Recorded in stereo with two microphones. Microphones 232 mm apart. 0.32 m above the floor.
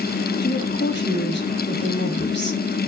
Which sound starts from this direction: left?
A woman speaking, at 0.4 s.